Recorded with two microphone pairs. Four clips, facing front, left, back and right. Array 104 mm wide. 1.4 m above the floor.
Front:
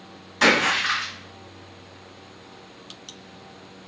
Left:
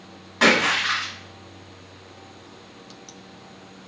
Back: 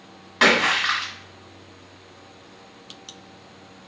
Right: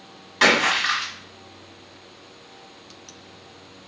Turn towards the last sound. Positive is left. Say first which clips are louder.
# even, back 1 dB
turn(degrees=180)